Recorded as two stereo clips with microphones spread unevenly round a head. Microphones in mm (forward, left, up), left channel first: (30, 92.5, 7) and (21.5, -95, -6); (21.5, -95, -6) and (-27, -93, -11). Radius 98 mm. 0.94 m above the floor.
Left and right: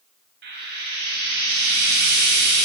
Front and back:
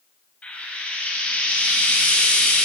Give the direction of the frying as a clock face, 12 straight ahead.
2 o'clock.